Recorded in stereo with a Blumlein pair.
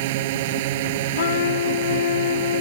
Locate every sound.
0.0 s a drone: 50° right
1.1 s a trumpet: 60° left